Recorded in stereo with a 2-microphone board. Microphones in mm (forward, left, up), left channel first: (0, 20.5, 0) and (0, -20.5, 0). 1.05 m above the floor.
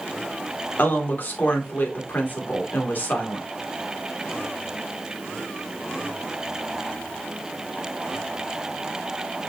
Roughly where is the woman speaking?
Left.